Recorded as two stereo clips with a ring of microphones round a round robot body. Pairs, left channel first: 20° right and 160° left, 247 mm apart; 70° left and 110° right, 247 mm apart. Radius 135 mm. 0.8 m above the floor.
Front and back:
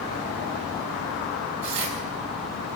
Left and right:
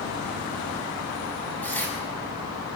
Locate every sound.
1.6 s tearing paper: 150° left, 6.5 m